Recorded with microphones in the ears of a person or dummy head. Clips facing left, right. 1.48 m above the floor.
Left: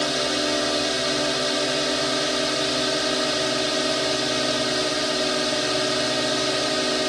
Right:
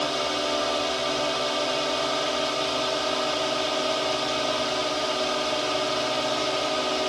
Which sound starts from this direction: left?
A drone, at 0.0 s.